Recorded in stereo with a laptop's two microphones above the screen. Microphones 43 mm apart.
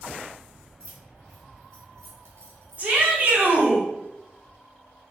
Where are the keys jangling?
85° right, 1.0 m.